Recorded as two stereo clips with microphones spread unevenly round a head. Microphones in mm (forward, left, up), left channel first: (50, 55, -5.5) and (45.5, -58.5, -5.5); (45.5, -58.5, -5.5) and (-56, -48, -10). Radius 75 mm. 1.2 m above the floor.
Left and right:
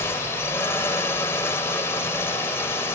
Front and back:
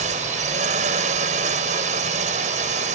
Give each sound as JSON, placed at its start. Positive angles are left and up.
{"t": 0.0, "sound": "a drone", "azimuth_deg": 165}